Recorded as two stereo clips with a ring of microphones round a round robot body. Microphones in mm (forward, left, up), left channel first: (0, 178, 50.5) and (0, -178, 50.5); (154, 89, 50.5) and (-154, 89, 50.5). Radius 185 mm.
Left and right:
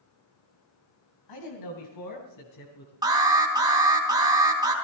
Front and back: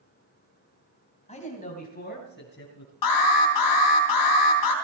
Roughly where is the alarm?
Ahead.